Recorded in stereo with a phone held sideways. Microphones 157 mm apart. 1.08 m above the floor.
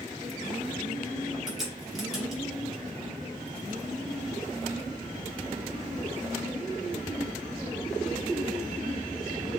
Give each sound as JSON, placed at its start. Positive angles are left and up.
{"t": 1.5, "sound": "a crack", "side_deg": 0, "distance_m": 2.5}